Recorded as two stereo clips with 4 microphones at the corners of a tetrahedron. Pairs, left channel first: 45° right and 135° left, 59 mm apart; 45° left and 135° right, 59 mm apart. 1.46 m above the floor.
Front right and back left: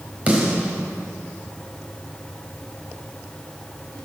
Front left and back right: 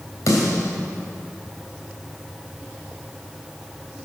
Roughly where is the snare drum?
Ahead left.